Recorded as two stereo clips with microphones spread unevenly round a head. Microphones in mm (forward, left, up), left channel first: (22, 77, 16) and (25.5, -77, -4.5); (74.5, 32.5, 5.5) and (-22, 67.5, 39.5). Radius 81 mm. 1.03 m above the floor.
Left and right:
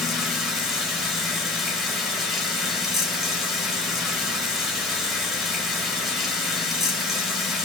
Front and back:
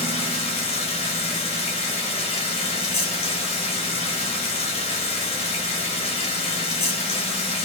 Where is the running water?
5° left, 1.2 m.